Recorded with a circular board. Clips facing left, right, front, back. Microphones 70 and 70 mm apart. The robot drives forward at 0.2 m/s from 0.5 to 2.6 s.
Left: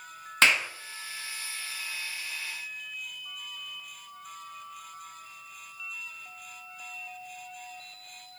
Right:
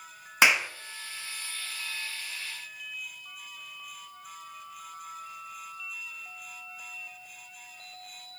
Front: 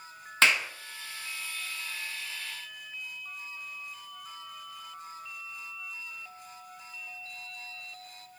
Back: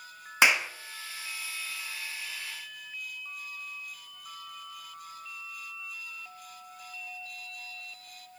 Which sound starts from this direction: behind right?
A clap, at 0.4 s.